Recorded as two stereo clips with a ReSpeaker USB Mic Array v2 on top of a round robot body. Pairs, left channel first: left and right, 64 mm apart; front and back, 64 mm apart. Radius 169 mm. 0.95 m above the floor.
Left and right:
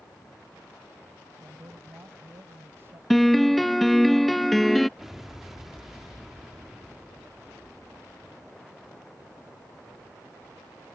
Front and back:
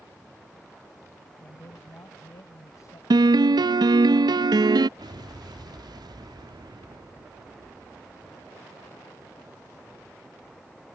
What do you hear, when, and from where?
1.4 s a man speaking: 35° right
3.1 s a piano: straight behind
5.0 s an explosion: 175° right